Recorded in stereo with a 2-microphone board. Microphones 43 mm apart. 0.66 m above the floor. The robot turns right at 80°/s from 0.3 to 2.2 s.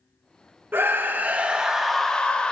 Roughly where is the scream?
Right.